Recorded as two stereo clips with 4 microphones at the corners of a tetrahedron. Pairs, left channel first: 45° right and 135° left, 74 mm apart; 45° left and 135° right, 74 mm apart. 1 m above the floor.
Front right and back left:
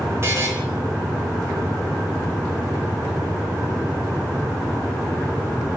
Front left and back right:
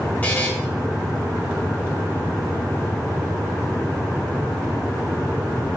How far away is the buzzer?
About 0.6 m.